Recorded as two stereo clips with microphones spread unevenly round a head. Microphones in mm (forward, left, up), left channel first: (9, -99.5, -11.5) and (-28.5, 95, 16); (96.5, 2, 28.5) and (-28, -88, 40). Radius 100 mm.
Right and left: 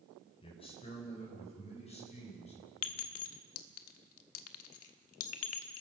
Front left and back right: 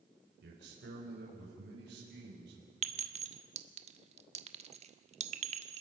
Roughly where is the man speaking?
Behind right.